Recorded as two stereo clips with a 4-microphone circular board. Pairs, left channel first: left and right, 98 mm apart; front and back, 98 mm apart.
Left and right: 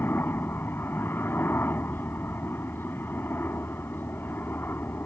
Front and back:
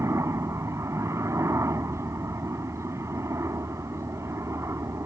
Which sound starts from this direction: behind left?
A helicopter, at 0.0 s.